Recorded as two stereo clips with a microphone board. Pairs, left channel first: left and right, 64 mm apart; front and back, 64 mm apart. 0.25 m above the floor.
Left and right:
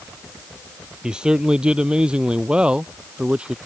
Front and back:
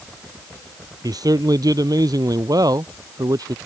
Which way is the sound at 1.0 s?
170° right.